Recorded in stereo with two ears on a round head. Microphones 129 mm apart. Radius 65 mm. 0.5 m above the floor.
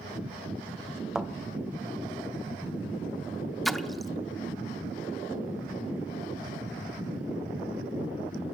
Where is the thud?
5° right (ahead or behind), 0.6 m.